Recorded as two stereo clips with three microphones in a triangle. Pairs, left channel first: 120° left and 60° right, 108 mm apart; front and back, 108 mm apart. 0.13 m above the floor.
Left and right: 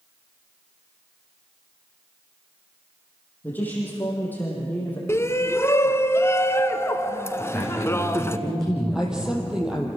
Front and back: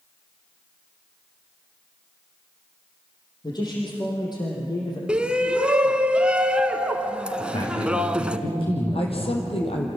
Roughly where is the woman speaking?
Ahead.